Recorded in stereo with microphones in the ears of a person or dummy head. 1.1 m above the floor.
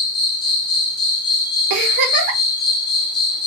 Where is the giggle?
55° right (ahead or behind), 1.4 m.